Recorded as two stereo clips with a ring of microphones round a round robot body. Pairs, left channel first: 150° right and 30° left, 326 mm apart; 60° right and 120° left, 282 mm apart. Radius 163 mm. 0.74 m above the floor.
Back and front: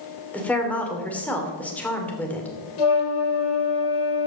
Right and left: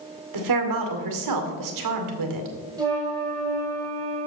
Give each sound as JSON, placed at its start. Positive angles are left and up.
{"t": 0.3, "sound": "a woman speaking", "azimuth_deg": 125, "distance_m": 2.0}
{"t": 2.8, "sound": "a flute", "azimuth_deg": -160, "distance_m": 3.5}